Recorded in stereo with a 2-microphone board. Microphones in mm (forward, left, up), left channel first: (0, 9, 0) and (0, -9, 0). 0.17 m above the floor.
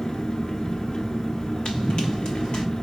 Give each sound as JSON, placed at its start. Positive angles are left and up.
{"t": 0.0, "sound": "an engine running", "side_deg": 55, "distance_m": 0.8}
{"t": 1.6, "sound": "running footsteps", "side_deg": 80, "distance_m": 0.8}